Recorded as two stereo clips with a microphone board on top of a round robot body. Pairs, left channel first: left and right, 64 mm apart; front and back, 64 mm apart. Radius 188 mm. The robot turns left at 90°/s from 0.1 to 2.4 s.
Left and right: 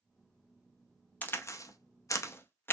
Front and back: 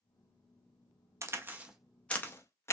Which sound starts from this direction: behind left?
A crack, at 1.2 s.